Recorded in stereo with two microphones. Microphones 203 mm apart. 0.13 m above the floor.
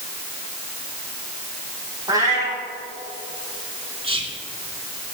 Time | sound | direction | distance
2.1 | a cat meowing | 15° right (ahead or behind) | 3 m
4.0 | whispering | 25° right (ahead or behind) | 1.2 m